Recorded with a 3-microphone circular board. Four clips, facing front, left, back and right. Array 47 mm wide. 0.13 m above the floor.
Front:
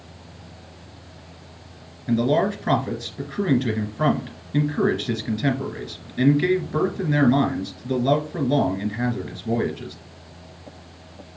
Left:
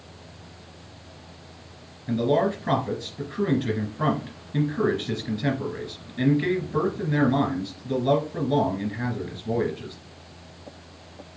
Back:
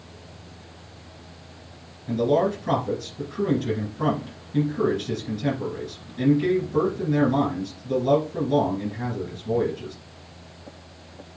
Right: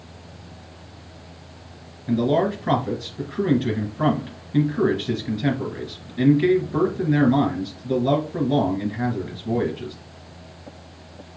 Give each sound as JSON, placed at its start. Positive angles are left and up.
{"t": 2.1, "sound": "a man speaking", "azimuth_deg": -15, "distance_m": 2.5}